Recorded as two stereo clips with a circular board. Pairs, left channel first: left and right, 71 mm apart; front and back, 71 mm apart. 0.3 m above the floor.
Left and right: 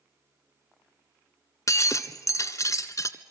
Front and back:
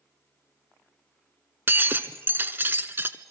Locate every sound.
1.7 s breaking glass: 125° left, 1.0 m